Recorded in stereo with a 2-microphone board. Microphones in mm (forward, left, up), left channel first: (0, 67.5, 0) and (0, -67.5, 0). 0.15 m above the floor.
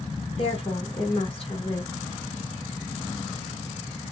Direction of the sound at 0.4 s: 45° left (ahead or behind).